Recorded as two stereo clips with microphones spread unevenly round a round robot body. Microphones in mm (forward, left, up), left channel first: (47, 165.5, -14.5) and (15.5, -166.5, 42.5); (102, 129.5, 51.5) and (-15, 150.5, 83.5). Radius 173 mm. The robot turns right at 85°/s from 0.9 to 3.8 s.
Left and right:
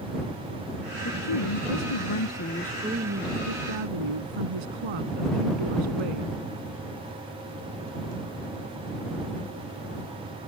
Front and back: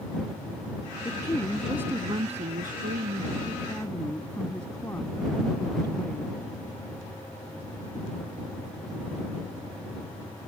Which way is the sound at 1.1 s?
30° left.